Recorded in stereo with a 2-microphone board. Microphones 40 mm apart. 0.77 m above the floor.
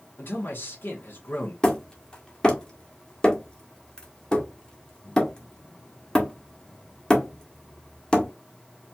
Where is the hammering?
20° left (ahead or behind), 1.3 m.